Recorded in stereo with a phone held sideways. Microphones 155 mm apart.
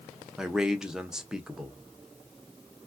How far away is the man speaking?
About 0.6 m.